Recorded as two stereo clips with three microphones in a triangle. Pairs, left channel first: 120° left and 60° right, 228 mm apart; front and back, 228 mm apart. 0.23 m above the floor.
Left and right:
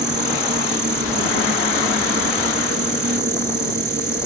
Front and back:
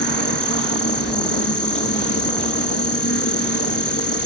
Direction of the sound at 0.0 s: 15° right.